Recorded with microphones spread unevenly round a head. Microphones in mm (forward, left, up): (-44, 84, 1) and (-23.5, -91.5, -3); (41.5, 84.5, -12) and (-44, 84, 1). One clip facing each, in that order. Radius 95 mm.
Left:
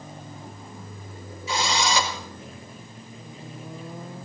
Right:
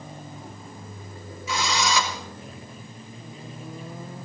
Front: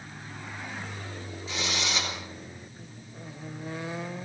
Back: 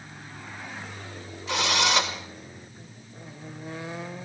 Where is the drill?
155° left, 5 m.